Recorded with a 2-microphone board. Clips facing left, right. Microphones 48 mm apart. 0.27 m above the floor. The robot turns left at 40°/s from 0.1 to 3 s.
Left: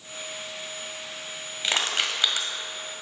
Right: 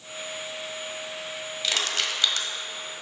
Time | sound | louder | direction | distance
1.6 | crushing | left 2 dB | 25° left (ahead or behind) | 1.4 m